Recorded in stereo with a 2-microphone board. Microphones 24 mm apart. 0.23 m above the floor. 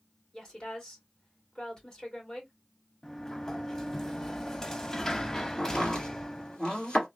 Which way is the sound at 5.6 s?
30° left (ahead or behind).